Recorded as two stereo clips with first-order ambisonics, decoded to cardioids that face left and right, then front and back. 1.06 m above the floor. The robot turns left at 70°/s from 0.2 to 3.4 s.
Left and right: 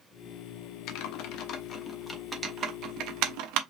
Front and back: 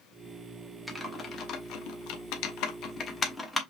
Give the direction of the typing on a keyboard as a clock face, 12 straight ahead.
9 o'clock.